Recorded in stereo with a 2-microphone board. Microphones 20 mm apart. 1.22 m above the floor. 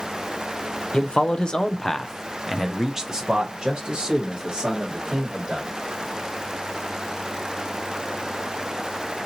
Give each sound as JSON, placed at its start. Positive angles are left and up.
{"t": 0.9, "sound": "a man speaking", "side_deg": 70, "distance_m": 0.8}